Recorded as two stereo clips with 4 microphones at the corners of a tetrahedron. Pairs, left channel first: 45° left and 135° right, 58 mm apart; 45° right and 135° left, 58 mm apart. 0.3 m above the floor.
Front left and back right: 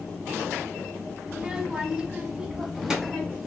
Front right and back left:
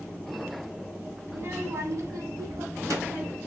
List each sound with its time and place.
1.3 s a child speaking: 155° left, 0.9 m; by 3.4 s 145° left, 2 m